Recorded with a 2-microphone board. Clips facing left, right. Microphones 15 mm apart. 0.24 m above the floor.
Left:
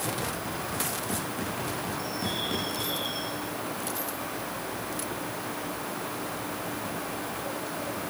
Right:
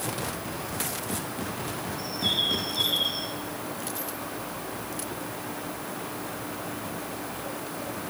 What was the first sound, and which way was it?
A bird, 65° right (ahead or behind).